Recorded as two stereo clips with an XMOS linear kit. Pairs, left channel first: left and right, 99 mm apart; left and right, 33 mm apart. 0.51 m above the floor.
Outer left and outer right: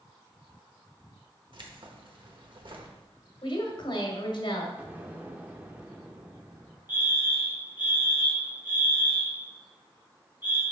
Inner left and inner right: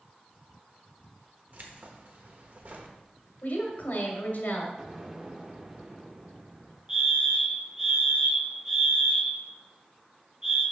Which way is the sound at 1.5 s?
55° right (ahead or behind).